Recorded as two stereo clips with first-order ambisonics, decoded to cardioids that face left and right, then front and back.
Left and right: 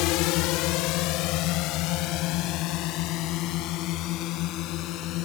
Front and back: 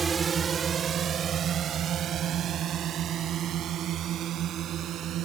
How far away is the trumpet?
I don't hear a trumpet.